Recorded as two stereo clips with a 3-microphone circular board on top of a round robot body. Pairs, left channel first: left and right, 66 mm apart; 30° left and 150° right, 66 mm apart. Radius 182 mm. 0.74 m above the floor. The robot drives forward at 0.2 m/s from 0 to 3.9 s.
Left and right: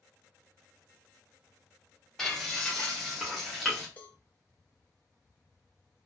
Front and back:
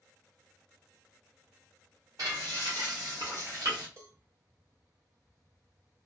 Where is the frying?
175° left, 0.6 m; by 3.9 s straight behind, 0.9 m.